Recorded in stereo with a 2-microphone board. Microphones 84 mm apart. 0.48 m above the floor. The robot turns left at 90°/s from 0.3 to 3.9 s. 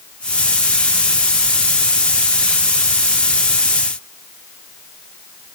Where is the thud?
No thud in this recording.